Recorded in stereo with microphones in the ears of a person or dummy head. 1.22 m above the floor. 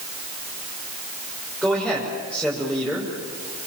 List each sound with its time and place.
1.6 s a man speaking: 5° right (ahead or behind), 5.5 m